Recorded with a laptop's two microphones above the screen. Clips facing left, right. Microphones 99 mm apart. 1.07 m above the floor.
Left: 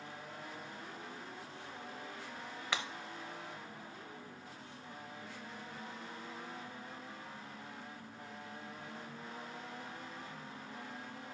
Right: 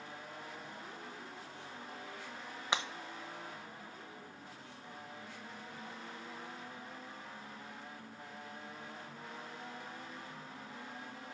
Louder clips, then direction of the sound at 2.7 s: Right 3 dB; 25° right (ahead or behind).